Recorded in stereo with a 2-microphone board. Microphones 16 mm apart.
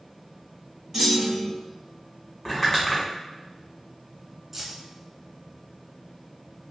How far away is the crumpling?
About 2.0 m.